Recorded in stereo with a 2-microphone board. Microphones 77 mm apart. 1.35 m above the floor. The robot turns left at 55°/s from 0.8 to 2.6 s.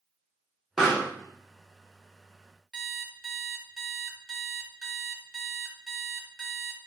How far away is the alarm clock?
About 0.9 m.